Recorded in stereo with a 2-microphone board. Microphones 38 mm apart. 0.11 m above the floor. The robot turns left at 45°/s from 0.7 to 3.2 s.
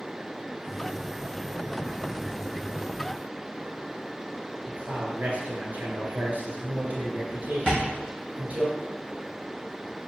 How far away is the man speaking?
About 1.6 m.